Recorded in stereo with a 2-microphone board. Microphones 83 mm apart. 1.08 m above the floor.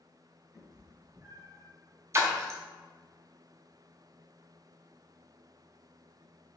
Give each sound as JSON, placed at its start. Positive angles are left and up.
{"t": 0.5, "sound": "a cat meowing", "side_deg": 0, "distance_m": 1.4}
{"t": 2.1, "sound": "a splash", "side_deg": -35, "distance_m": 0.6}